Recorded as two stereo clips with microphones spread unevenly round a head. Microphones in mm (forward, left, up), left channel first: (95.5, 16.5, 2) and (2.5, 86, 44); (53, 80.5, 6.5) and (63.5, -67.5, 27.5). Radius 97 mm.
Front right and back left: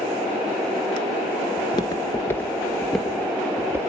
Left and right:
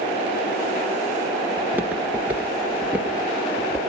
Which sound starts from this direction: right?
Footsteps, at 1.6 s.